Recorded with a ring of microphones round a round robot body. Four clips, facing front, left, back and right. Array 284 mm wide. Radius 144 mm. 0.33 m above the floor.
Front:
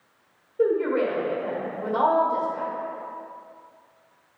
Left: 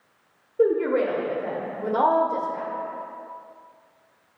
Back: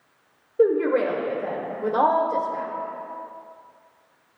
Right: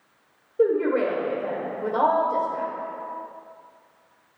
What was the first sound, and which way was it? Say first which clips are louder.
A woman speaking: even, back 3 dB; straight behind.